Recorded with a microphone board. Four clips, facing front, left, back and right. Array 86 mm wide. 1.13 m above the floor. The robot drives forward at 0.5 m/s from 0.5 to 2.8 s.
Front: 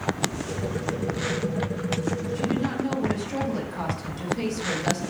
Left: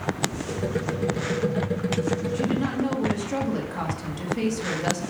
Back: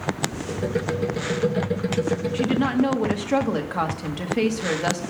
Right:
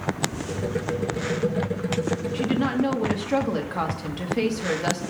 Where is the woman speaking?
155° right, 1.5 m; by 5.0 s 160° right, 1.7 m.